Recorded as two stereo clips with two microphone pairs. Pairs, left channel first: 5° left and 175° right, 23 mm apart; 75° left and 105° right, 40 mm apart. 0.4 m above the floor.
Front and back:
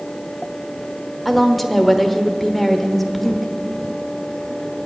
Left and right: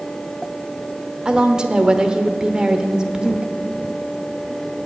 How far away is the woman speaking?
About 1.0 m.